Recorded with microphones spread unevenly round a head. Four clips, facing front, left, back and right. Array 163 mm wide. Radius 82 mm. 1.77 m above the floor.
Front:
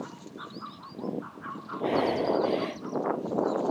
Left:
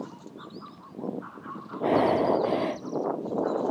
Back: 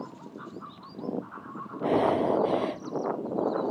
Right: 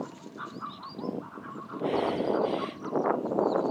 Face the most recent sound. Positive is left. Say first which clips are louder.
# left 5 dB, back 2 dB
turn(degrees=105)